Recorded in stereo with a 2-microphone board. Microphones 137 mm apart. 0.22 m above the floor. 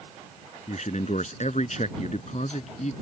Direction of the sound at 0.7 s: 60° left (ahead or behind).